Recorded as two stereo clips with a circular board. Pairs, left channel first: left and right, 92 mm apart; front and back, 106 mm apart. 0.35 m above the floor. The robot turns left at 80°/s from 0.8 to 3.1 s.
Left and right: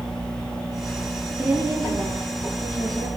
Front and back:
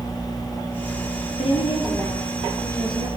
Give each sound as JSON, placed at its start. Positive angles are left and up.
{"t": 1.4, "sound": "a woman speaking", "azimuth_deg": -15, "distance_m": 8.0}